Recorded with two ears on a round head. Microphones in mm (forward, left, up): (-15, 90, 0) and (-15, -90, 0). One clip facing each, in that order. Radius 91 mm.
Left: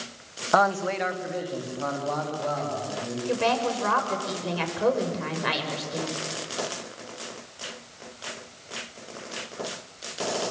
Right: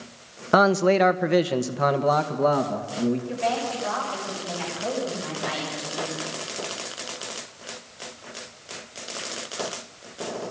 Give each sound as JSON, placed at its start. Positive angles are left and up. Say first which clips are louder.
{"t": 0.5, "sound": "a man speaking", "louder": "right 6 dB", "side_deg": -35, "distance_m": 1.4}
{"t": 3.3, "sound": "a woman speaking", "louder": "left 2 dB", "side_deg": 80, "distance_m": 6.5}